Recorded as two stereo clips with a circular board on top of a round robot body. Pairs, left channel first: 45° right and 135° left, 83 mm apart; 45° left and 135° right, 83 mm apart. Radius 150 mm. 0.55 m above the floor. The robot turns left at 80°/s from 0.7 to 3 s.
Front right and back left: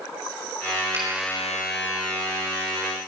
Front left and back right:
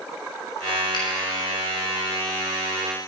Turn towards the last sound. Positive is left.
turn(degrees=-85)